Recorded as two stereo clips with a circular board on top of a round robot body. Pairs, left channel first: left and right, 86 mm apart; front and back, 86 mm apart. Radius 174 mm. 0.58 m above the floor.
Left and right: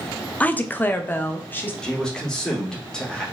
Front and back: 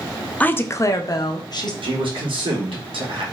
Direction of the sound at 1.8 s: 175° left.